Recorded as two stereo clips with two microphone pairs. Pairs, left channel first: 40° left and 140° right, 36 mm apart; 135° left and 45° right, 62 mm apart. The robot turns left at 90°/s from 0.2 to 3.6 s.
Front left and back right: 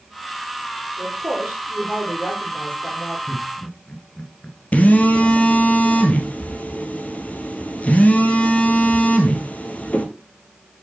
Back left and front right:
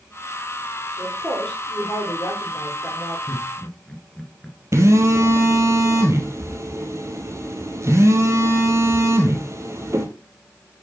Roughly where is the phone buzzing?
Ahead.